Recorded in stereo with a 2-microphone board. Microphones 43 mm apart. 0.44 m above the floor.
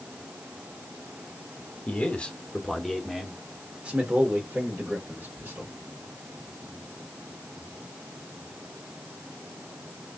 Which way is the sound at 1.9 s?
35° left (ahead or behind).